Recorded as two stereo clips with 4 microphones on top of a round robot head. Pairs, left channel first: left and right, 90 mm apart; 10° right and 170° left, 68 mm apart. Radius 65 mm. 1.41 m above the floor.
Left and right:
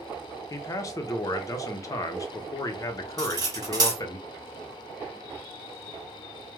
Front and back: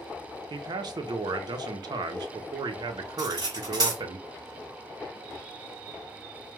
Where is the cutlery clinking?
135° right, 1.2 m.